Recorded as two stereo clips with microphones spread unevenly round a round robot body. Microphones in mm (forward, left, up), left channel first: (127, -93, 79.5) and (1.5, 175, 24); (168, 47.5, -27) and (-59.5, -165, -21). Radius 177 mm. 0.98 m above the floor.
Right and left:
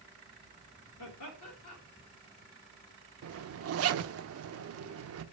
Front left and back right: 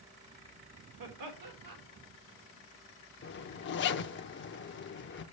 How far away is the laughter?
About 3.5 m.